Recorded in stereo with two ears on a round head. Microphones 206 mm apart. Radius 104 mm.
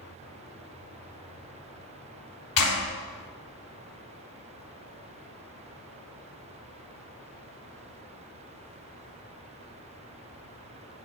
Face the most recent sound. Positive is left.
turn(degrees=65)  # may be behind; listen again after turning